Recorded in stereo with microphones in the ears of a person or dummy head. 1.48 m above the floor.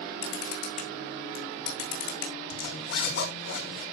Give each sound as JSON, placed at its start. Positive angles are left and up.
{"t": 0.2, "sound": "a camera shutter", "side_deg": 75, "distance_m": 7.0}
{"t": 2.5, "sound": "a zipper", "side_deg": 75, "distance_m": 5.5}